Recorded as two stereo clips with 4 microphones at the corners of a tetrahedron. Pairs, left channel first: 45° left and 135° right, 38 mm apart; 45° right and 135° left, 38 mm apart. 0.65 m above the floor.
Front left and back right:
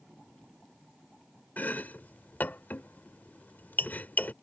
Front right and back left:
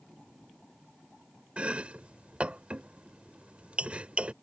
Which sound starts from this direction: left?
Chopping, at 1.6 s.